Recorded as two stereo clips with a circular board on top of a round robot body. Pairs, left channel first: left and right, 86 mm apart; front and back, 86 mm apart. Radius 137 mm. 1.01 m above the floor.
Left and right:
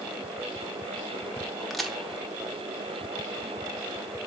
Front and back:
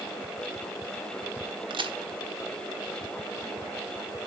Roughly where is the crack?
Behind.